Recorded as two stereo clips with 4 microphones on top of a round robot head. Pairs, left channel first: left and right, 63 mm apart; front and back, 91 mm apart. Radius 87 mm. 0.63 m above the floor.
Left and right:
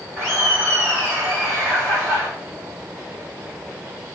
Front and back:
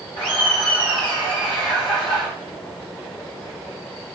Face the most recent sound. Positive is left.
turn(degrees=-5)